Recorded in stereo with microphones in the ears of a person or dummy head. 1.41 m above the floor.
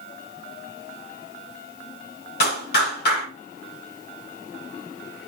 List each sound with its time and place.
2.4 s a clap: 55° left (ahead or behind), 6 m